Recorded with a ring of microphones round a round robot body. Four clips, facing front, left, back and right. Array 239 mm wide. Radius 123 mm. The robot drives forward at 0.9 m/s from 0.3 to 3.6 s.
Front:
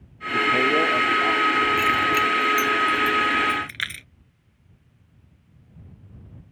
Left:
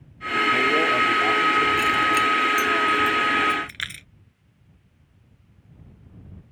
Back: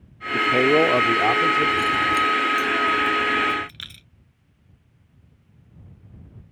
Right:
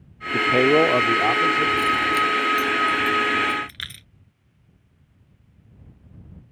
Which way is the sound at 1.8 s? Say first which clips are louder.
Even, even; 15° left.